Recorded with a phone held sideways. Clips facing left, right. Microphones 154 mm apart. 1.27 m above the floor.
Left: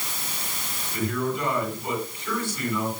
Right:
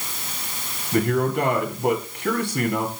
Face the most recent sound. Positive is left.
turn(degrees=-65)  # may be behind; listen again after turning